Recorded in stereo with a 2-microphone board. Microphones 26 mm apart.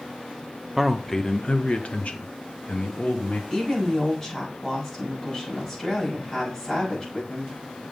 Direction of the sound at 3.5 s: 15° left (ahead or behind).